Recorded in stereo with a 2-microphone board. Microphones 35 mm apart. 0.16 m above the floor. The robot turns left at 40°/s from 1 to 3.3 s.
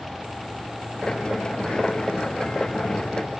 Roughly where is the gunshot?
No gunshot in this recording.